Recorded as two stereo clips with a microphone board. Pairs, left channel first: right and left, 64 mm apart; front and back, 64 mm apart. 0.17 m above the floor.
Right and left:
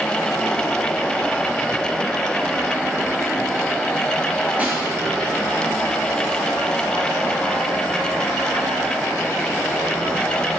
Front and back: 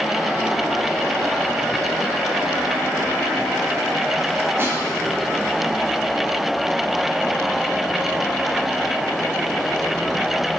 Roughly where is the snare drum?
Behind left.